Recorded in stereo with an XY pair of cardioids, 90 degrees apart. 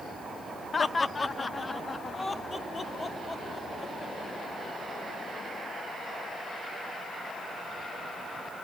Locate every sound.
0.7 s laughter: 35° left, 0.9 m; by 4.3 s 25° left, 4 m